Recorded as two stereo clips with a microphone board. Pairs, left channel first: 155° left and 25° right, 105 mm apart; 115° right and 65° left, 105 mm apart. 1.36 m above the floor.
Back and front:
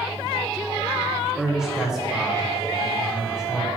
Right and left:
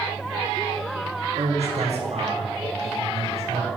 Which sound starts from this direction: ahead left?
A man speaking, at 1.4 s.